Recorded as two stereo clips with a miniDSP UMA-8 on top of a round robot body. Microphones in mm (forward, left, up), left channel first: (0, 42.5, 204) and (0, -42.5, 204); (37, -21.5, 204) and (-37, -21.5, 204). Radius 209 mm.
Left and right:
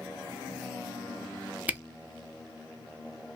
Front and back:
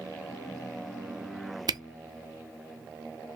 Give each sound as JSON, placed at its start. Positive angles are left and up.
{"t": 1.7, "sound": "a camera shutter", "azimuth_deg": -160, "distance_m": 0.6}